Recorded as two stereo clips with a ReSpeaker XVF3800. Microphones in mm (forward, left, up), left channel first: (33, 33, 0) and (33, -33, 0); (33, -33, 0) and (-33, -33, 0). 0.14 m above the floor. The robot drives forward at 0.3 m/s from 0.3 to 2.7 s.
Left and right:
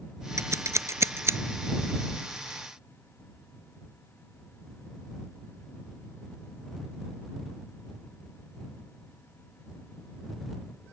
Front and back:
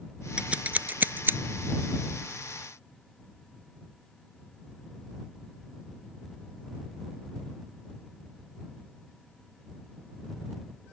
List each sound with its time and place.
0.4 s scissors: 110° right; by 1.4 s 130° right